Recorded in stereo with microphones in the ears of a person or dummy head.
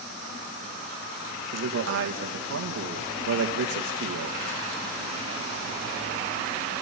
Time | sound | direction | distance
1.5 | a man speaking | 75° right (ahead or behind) | 2 m